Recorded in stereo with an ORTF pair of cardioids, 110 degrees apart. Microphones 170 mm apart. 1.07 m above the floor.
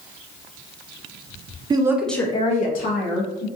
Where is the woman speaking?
25° right, 0.7 m; by 3.5 s 75° left, 1.3 m.